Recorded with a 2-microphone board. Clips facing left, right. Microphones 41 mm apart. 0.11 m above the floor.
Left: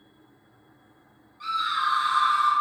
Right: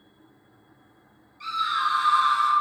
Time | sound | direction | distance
1.4 | a scream | 15° left (ahead or behind) | 1.6 m